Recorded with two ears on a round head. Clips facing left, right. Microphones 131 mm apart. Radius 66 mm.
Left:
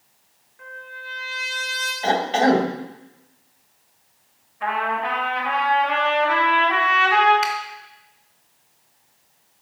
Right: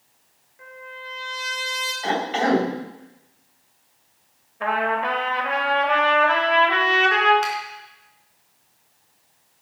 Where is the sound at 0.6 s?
10° right (ahead or behind), 3 m.